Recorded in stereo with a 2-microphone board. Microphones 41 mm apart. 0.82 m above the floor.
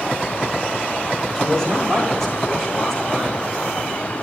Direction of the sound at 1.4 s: 10° left (ahead or behind).